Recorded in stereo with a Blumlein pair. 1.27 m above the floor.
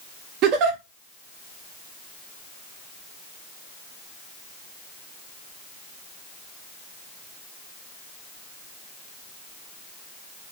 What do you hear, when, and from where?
0.4 s a giggle: 35° right, 0.6 m